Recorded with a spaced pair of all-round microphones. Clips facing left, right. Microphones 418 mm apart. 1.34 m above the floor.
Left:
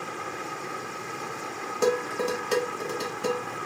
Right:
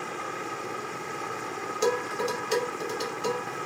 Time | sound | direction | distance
1.8 | dishes clattering | 70° left (ahead or behind) | 1.1 m